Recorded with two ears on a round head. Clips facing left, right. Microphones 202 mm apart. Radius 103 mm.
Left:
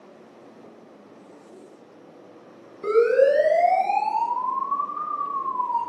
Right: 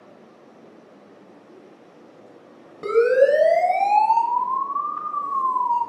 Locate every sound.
2.8 s a siren: 60° right (ahead or behind), 5 m; by 5.8 s 85° right, 7 m